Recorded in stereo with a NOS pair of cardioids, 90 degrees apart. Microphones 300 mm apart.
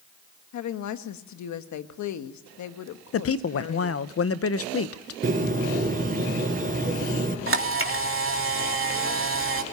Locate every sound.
0.5 s a woman speaking: 70° left, 1.5 m
3.1 s a woman speaking: 50° left, 0.9 m
5.2 s a bird: 30° right, 5 m
7.5 s a camera shutter: 45° right, 3 m